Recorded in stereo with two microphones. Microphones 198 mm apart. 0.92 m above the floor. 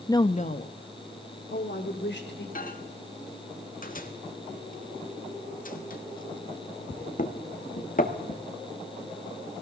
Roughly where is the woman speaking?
Centre.